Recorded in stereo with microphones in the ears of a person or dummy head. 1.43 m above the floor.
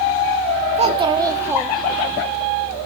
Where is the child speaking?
30° right (ahead or behind), 1.7 m; by 2.2 s 25° left (ahead or behind), 1.1 m.